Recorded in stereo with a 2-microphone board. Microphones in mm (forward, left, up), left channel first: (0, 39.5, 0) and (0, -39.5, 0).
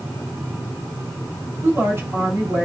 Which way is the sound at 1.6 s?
35° right (ahead or behind).